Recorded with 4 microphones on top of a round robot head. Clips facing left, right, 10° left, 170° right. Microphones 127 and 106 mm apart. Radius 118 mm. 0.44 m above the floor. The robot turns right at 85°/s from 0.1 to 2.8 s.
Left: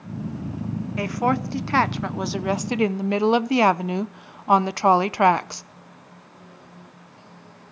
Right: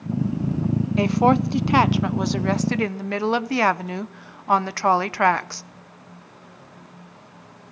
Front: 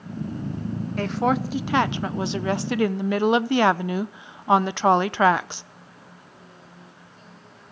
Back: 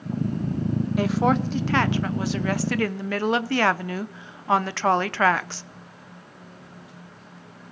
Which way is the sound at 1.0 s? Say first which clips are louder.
Right 5 dB, back 1 dB; 105° right.